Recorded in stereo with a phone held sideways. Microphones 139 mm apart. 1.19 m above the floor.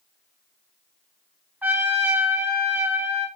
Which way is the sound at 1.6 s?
10° right (ahead or behind).